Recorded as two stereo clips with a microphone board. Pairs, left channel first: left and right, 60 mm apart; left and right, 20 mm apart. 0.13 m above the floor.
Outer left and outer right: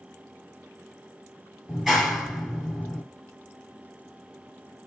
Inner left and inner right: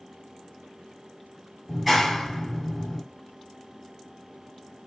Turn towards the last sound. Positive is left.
turn(degrees=-5)  # may be behind; listen again after turning